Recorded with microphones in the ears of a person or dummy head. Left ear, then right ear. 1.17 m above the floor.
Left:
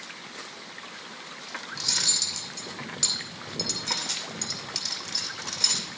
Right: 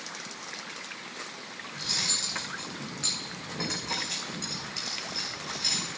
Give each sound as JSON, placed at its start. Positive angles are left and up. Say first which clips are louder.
{"t": 1.7, "sound": "cutlery clinking", "louder": "left 3 dB", "side_deg": 75, "distance_m": 2.5}